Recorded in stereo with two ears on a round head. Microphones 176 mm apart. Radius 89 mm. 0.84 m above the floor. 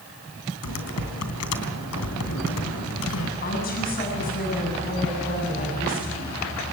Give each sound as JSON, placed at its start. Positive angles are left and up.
{"t": 0.6, "sound": "typing on a keyboard", "side_deg": 85, "distance_m": 3.0}
{"t": 3.4, "sound": "a woman speaking", "side_deg": 45, "distance_m": 7.5}